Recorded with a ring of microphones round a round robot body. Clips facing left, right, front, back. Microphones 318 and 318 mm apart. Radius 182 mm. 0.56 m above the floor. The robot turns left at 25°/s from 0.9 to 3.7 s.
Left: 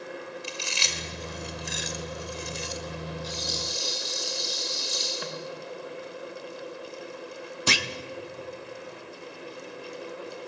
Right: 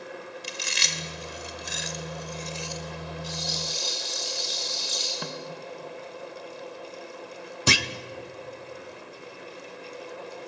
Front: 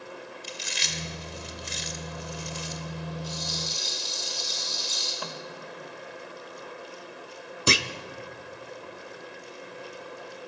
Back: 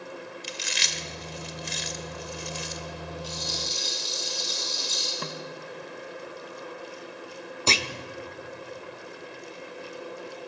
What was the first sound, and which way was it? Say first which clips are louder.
Chewing: left 1 dB, back 1 dB; 160° right.